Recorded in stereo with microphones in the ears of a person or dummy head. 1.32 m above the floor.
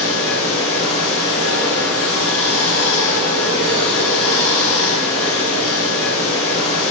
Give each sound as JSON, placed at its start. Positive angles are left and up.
{"t": 0.0, "sound": "running water", "side_deg": 5, "distance_m": 4.5}